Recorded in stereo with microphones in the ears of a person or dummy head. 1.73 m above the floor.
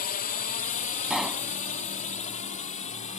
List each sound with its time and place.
0.0 s a drone: 40° left (ahead or behind); by 3.2 s 35° left (ahead or behind)
1.1 s a pop: centre (ahead or behind)